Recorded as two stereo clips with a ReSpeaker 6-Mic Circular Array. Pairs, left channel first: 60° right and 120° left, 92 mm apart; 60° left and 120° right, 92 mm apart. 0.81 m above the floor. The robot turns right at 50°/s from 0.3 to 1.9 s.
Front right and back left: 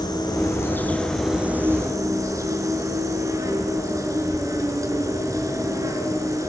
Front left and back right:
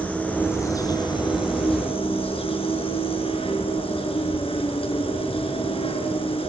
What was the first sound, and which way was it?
An insect, 15° right.